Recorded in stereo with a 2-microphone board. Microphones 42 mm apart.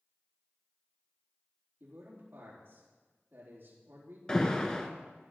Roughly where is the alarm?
Centre.